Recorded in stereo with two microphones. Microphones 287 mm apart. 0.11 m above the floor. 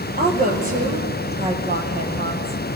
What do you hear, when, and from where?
0.2 s a woman speaking: 30° right (ahead or behind), 3 m